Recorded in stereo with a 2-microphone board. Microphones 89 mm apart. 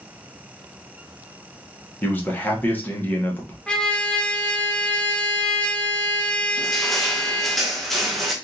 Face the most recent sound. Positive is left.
turn(degrees=0)  # may be behind; listen again after turning